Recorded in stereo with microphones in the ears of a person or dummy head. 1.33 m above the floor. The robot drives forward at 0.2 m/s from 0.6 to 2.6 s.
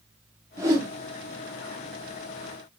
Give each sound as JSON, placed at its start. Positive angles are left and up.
{"t": 0.6, "sound": "a whoosh", "side_deg": -20, "distance_m": 0.7}